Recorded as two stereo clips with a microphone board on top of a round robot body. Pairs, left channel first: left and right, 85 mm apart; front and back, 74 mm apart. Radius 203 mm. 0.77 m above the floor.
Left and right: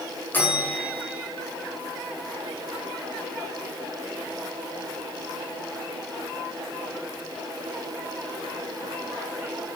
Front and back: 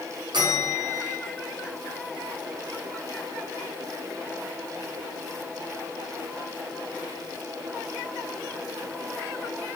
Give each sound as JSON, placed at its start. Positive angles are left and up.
{"t": 0.3, "sound": "a bell", "azimuth_deg": 160, "distance_m": 1.7}